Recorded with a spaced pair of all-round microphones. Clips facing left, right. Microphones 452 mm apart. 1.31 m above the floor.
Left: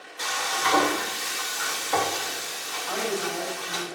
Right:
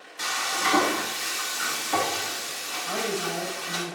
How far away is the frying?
About 3 m.